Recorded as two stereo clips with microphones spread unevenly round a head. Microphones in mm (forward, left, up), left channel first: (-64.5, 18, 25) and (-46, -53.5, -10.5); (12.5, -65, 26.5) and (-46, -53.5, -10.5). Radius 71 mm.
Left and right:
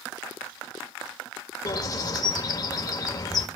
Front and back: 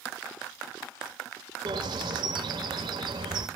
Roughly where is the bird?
Behind left.